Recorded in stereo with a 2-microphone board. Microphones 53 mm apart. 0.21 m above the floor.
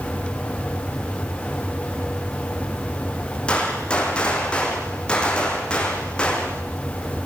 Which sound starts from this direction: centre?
A gunshot, at 3.5 s.